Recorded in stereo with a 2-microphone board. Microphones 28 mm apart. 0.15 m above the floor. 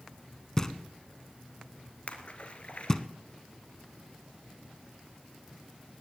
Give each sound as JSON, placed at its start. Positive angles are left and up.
{"t": 0.6, "sound": "knocking", "side_deg": 20, "distance_m": 0.8}
{"t": 2.1, "sound": "a splash", "side_deg": 45, "distance_m": 1.5}